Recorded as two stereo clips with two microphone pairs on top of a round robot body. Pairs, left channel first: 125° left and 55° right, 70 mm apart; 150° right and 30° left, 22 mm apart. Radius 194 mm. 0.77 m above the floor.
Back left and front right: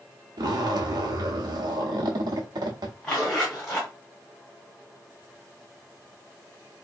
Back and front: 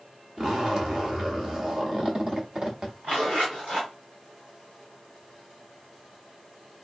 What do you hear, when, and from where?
0.4 s a zipper: 25° right, 0.7 m
3.0 s a zipper: 50° left, 0.6 m